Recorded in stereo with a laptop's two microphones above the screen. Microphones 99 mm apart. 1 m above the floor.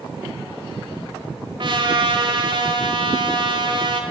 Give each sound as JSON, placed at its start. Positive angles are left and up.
{"t": 1.6, "sound": "a trumpet", "side_deg": -50, "distance_m": 1.5}